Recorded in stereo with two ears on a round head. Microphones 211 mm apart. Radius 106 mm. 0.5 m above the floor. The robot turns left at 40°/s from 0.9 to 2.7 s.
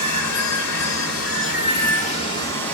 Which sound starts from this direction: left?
Running water, at 0.0 s.